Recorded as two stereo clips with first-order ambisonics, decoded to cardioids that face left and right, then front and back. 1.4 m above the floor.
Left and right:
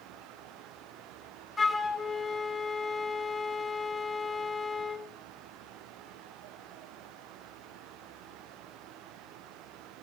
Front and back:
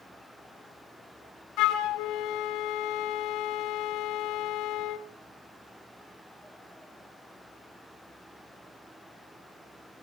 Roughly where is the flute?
Ahead.